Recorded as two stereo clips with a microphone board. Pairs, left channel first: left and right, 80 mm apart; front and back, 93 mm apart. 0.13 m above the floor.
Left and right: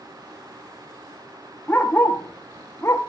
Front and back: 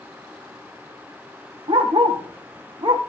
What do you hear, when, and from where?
1.7 s a dog barking: 160° left, 3.5 m; by 3.0 s 145° left, 3 m